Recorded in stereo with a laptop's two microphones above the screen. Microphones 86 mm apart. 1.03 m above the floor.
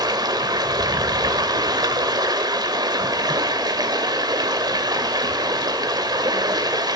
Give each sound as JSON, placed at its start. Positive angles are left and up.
{"t": 0.0, "sound": "running water", "side_deg": -50, "distance_m": 2.5}